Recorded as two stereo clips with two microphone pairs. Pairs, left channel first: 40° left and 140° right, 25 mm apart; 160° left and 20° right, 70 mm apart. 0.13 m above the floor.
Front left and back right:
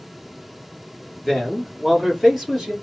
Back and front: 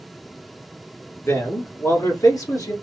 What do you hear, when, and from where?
1.2 s a man speaking: 130° left, 2.0 m; by 2.7 s 150° left, 2.5 m